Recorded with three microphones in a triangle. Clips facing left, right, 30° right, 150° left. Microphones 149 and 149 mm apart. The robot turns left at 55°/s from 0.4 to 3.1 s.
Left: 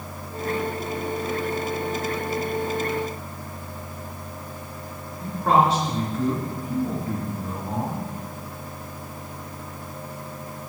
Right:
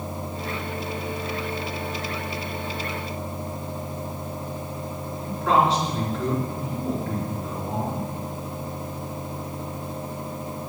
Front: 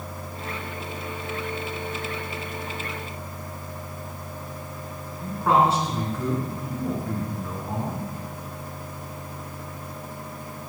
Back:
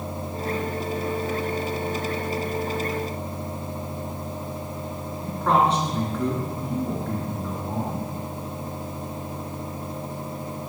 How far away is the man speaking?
About 3.5 m.